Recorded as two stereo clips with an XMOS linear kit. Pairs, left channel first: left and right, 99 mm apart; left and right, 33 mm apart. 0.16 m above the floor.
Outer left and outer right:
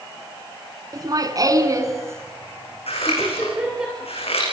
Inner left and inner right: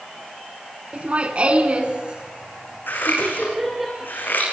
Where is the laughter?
40° right (ahead or behind), 2.5 m; by 3.9 s 10° right (ahead or behind), 4.5 m.